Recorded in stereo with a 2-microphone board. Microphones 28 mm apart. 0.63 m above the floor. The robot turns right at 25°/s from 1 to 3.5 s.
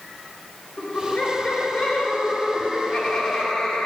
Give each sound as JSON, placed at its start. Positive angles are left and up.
{"t": 0.8, "sound": "laughter", "azimuth_deg": 95, "distance_m": 1.9}